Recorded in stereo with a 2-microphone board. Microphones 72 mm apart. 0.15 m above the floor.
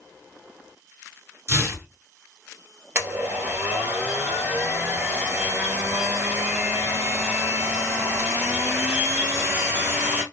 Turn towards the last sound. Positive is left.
turn(degrees=-25)  # may be behind; listen again after turning